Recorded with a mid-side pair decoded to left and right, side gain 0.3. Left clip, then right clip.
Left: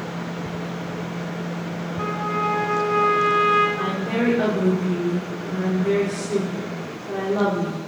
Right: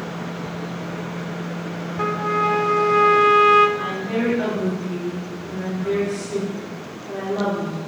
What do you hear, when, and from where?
2.0 s a trumpet: 60° right, 1.8 m
3.8 s a woman speaking: 50° left, 5 m